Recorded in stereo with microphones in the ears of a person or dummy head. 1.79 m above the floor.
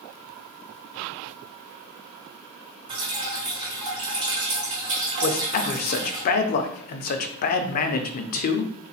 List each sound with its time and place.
2.9 s dripping: 30° right (ahead or behind), 1.3 m
5.2 s a man speaking: 50° left (ahead or behind), 0.5 m